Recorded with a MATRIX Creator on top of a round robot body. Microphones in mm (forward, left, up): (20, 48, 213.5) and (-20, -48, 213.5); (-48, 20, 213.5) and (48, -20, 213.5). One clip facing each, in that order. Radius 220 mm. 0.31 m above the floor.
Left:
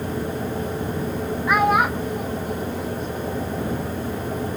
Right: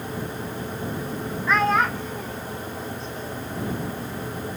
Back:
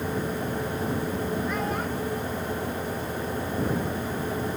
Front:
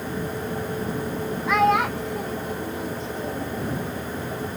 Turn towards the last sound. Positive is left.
turn(degrees=-10)